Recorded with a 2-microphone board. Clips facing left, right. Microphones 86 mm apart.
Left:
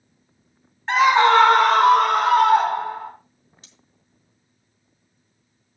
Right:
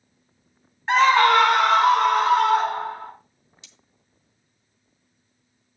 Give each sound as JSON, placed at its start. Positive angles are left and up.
{"t": 0.9, "sound": "a scream", "side_deg": -5, "distance_m": 1.0}
{"t": 3.6, "sound": "cutlery clinking", "side_deg": 45, "distance_m": 2.0}